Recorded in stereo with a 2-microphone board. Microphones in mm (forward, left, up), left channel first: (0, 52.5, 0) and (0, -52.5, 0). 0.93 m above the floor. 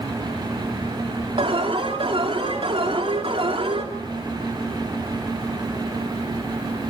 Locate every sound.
1.4 s an alarm: 60° right (ahead or behind), 3.5 m